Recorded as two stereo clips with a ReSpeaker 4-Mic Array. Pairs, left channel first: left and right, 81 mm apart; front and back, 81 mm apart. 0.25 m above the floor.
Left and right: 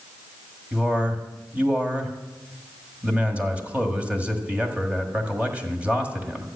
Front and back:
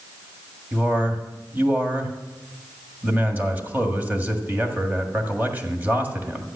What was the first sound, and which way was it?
A man speaking, 145° right.